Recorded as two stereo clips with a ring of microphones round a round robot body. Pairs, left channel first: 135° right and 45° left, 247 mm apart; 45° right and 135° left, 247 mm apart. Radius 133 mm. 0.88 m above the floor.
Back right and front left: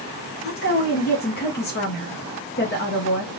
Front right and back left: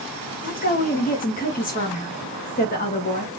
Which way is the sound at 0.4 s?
95° right.